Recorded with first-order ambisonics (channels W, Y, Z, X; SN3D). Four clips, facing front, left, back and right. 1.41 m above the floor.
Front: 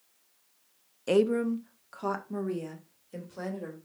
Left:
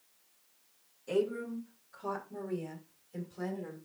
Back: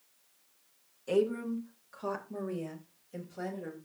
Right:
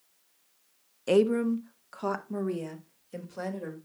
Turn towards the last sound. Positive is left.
turn(degrees=-65)